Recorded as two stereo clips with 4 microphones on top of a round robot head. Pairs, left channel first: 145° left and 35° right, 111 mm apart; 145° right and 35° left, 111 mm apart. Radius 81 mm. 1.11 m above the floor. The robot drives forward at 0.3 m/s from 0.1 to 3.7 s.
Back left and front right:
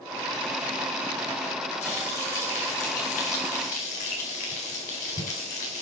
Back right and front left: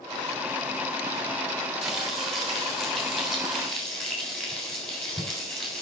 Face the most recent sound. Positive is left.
turn(degrees=130)